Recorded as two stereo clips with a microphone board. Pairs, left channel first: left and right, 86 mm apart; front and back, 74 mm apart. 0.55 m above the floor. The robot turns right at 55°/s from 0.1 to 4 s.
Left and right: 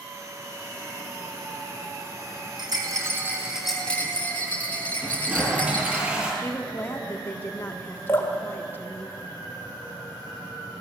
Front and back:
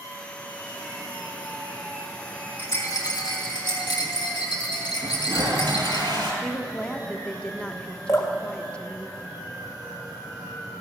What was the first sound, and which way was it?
A rattle, 60° right.